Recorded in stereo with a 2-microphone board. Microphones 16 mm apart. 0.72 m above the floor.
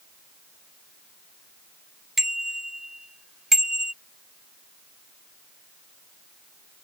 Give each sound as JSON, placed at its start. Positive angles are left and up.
{"t": 2.2, "sound": "a bicycle bell", "side_deg": -30}